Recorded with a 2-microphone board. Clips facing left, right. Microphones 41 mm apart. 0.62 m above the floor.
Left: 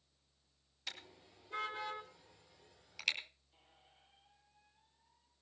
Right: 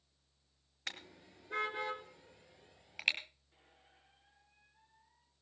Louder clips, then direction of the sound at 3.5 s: Right 1 dB; 85° right.